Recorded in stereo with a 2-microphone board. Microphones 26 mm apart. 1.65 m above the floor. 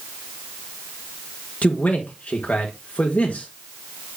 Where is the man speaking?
70° left (ahead or behind), 1.4 m.